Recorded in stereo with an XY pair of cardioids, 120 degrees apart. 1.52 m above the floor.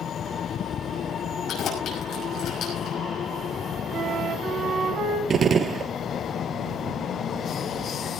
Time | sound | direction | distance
1.5 | keys jangling | 60° left | 5.5 m
3.9 | a flute | 60° right | 3 m
5.3 | a gunshot | 35° right | 0.7 m